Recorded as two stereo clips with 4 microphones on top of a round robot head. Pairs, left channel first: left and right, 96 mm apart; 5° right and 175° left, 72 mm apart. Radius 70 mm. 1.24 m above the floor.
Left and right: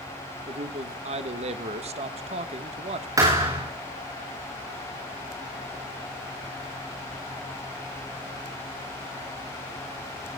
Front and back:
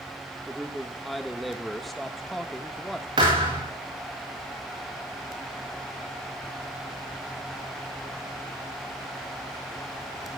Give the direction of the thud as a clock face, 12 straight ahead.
5 o'clock.